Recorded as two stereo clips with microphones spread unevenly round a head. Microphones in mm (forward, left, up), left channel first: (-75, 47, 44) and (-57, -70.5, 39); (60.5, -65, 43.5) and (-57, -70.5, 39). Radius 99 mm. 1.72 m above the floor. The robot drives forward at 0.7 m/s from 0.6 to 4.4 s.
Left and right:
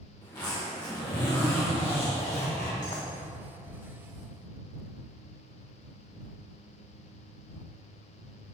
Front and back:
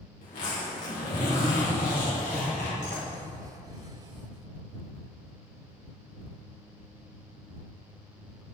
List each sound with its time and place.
0.2 s a zipper: 30° left, 3.5 m; by 3.1 s 55° left, 2 m